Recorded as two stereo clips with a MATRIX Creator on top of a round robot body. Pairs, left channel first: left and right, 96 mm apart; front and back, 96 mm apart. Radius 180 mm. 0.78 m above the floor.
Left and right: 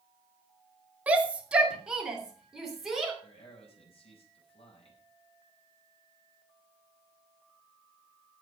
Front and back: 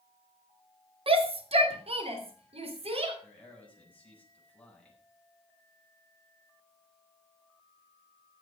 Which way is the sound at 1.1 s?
165° right.